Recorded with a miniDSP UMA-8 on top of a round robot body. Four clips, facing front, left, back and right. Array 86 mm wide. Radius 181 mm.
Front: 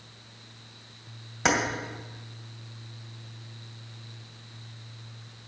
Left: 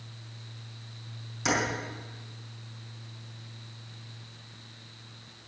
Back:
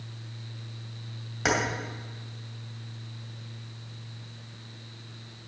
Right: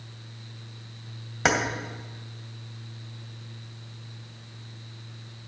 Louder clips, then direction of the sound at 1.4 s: Right 5 dB, front 2 dB; 85° right.